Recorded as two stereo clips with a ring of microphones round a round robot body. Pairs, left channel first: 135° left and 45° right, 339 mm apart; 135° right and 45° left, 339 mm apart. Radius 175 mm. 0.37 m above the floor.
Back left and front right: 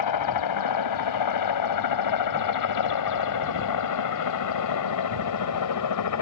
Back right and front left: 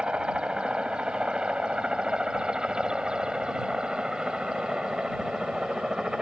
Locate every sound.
0.0 s a helicopter: 130° left; by 6.2 s 135° left